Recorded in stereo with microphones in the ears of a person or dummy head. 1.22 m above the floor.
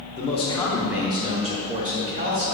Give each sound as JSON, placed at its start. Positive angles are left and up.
{"t": 0.2, "sound": "a man speaking", "side_deg": 40, "distance_m": 0.8}